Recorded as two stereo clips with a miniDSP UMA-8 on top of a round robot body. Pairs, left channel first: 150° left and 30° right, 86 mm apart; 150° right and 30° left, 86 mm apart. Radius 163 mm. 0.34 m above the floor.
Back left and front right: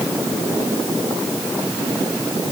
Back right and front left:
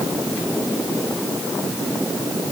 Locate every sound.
Only background noise.